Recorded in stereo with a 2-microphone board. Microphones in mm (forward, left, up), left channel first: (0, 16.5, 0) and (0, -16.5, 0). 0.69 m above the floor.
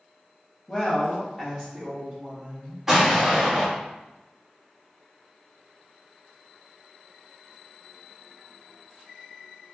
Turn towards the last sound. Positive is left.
turn(degrees=-10)  # may be behind; listen again after turning